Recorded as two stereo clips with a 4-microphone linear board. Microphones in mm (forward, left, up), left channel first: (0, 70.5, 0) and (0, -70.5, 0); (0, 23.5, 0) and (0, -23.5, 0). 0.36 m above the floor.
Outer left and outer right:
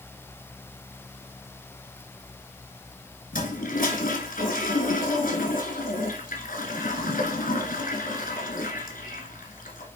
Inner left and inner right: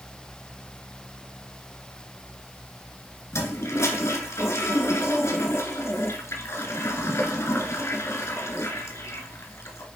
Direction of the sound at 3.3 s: 85° left.